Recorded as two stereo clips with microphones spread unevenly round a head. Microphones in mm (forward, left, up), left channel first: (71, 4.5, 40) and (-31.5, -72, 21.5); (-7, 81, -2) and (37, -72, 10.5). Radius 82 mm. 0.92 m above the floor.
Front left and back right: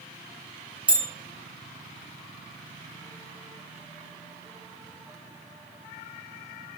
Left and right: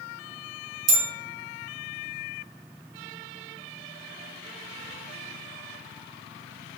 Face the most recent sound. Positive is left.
turn(degrees=-65)